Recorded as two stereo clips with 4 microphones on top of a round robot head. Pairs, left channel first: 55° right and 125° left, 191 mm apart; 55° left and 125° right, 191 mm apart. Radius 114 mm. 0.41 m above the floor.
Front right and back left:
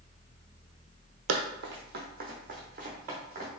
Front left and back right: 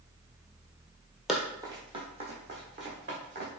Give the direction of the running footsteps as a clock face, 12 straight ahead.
7 o'clock.